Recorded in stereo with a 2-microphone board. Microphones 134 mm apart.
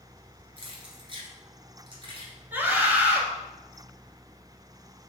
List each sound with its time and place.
0.6 s keys jangling: 45° right (ahead or behind), 1.3 m
2.5 s a scream: 15° right (ahead or behind), 1.3 m